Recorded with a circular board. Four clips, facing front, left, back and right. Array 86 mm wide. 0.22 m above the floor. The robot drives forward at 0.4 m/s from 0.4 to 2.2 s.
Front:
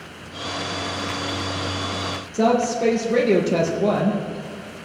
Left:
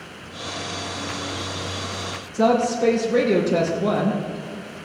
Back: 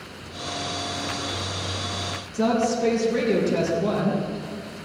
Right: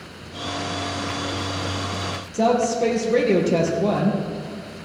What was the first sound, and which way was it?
A woman speaking, 35° right.